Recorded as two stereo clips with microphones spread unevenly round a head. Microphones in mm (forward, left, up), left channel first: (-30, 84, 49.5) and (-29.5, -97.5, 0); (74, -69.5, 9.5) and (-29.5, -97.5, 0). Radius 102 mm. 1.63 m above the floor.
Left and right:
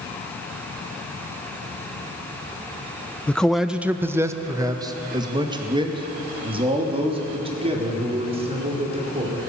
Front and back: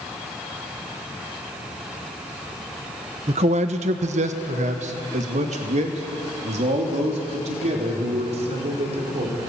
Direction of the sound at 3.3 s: 160° left.